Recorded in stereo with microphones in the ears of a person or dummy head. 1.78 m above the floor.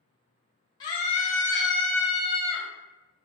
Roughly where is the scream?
Left.